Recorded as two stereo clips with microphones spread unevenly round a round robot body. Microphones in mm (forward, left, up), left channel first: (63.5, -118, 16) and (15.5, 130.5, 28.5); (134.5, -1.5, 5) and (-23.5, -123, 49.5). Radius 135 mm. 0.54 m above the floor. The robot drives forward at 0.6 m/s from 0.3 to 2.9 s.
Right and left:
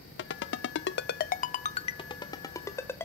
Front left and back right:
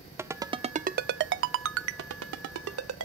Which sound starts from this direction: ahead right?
A ringtone, at 0.2 s.